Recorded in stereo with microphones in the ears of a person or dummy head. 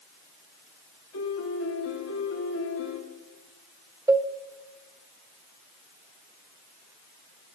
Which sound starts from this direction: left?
A piano, at 1.1 s.